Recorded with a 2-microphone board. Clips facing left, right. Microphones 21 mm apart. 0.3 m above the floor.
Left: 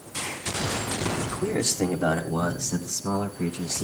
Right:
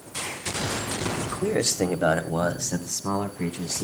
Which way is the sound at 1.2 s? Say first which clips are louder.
Right 2 dB; 25° right (ahead or behind).